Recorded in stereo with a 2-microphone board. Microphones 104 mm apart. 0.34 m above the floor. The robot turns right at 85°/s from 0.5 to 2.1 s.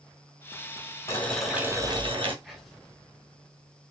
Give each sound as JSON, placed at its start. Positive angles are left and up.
{"t": 1.1, "sound": "boiling", "azimuth_deg": 150, "distance_m": 1.3}
{"t": 2.4, "sound": "whispering", "side_deg": 0, "distance_m": 1.2}